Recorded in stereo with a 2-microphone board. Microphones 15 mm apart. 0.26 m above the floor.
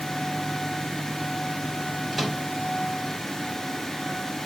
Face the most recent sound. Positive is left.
turn(degrees=-15)  # may be behind; listen again after turning